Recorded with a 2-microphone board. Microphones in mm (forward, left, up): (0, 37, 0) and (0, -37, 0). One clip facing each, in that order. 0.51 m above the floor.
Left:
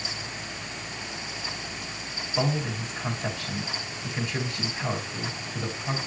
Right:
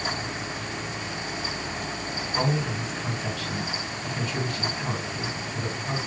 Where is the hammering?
I don't hear hammering.